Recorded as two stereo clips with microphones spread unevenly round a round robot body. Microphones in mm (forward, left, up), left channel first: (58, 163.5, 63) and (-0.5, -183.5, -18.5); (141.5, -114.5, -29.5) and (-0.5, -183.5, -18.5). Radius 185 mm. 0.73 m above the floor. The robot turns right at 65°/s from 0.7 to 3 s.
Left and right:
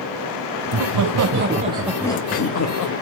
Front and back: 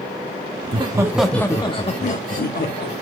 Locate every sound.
0.6 s laughter: 95° right, 0.8 m; by 2.9 s 45° left, 0.8 m